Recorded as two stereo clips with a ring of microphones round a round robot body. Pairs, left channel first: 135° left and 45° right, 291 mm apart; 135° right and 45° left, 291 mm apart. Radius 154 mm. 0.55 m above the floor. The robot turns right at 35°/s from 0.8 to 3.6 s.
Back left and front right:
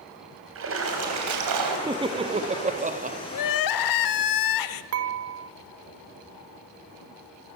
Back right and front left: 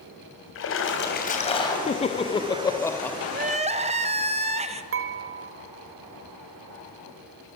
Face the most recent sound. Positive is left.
turn(degrees=-5)